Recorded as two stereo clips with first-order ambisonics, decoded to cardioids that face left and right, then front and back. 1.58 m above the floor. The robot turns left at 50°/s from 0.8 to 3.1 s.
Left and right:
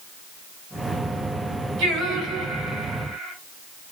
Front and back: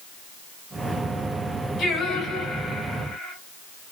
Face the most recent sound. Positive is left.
turn(degrees=-125)